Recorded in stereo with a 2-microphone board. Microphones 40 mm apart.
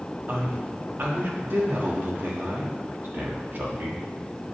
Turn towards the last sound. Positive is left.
turn(degrees=-60)  # may be behind; listen again after turning